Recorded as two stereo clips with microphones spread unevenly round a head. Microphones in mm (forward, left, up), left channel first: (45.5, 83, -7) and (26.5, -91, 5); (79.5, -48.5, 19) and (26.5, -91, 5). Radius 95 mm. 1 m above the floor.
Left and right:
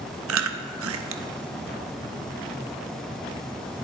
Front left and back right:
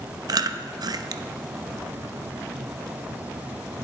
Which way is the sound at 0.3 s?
115° right.